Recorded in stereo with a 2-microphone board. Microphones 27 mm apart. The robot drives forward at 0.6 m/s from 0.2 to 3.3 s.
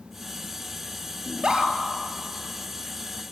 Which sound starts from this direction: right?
A scream, at 1.3 s.